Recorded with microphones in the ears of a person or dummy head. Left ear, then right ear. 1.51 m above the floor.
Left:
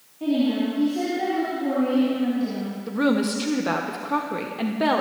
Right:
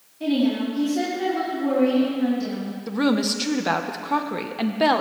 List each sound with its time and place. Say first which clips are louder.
0.2 s a woman speaking: even; 85° right, 3.5 m
2.9 s a woman speaking: even; 20° right (ahead or behind), 0.7 m